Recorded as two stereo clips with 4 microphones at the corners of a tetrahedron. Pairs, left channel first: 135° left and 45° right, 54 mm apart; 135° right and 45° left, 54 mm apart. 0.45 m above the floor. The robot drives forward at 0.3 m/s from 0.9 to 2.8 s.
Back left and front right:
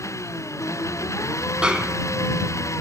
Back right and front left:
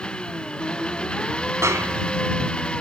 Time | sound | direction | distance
0.0 | an engine running | 155° left | ?
1.6 | a snare drum | 25° left | ?